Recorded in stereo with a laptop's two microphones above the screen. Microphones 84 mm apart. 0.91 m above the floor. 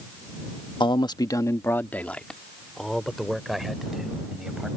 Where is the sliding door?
I don't hear a sliding door.